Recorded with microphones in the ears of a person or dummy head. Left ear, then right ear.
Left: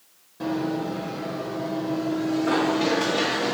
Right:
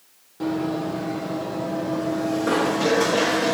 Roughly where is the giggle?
No giggle in this recording.